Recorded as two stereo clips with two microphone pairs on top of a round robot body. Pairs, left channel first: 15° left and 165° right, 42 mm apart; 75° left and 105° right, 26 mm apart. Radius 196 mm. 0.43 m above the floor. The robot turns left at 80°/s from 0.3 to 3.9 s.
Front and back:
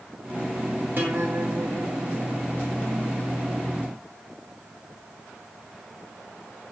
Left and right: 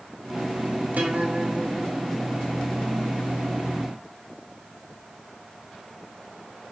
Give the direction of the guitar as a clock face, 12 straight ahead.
4 o'clock.